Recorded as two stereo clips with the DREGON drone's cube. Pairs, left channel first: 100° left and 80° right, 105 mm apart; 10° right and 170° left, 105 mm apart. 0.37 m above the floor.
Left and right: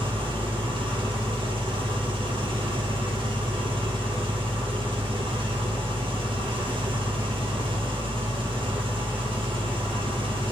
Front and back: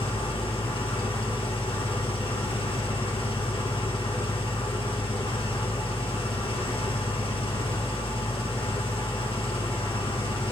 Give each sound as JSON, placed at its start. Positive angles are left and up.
{"t": 0.0, "sound": "an engine running", "azimuth_deg": -45, "distance_m": 2.5}